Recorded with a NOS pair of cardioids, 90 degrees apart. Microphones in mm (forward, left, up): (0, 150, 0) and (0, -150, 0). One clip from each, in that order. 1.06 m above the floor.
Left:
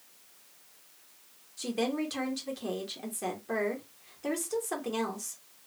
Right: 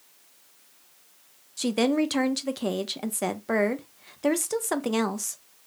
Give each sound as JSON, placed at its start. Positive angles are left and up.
{"t": 1.6, "sound": "a woman speaking", "azimuth_deg": -45, "distance_m": 0.7}